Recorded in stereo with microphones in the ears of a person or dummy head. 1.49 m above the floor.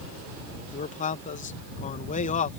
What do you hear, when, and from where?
0.7 s a man speaking: 40° left (ahead or behind)